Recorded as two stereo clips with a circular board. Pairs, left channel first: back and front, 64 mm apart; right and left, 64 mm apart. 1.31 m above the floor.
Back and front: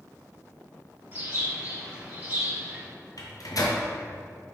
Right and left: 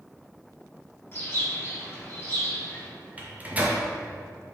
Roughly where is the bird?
Ahead right.